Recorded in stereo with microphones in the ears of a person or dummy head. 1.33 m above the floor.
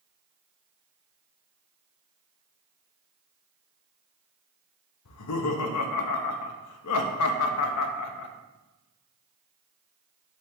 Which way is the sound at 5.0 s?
80° left.